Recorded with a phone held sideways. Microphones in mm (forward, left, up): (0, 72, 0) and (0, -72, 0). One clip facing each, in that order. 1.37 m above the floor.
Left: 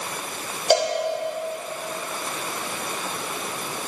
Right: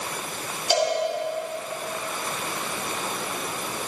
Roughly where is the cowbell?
Left.